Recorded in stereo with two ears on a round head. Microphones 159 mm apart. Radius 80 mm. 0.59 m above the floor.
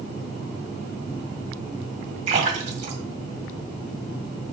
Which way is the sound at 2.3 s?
45° right (ahead or behind).